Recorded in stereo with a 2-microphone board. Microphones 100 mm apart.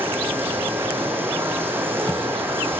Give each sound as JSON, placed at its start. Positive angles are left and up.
{"t": 0.0, "sound": "running water", "side_deg": -20, "distance_m": 5.0}